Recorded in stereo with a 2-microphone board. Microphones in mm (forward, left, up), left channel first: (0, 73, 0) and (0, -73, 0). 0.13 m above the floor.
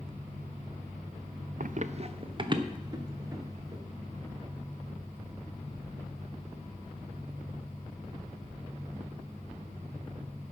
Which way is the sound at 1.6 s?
70° right (ahead or behind).